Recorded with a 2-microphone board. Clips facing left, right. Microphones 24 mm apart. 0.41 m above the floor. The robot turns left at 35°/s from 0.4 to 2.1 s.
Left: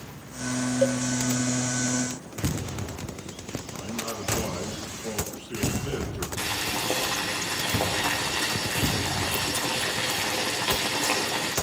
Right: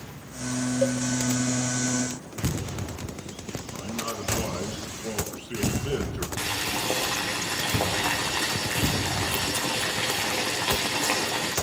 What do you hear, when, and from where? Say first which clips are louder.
0.8 s a cowbell: left 2 dB; 10° left (ahead or behind), 1.3 m; by 1.0 s 15° left (ahead or behind), 1.3 m
3.7 s a man speaking: right 1 dB; 75° right (ahead or behind), 5.5 m
6.4 s boiling: even; 50° right (ahead or behind), 6.5 m